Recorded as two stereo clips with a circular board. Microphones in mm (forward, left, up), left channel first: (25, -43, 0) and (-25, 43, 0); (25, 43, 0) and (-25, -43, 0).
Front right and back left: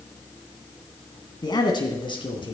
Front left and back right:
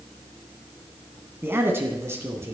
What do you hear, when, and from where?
1.4 s a man speaking: 60° right, 2.0 m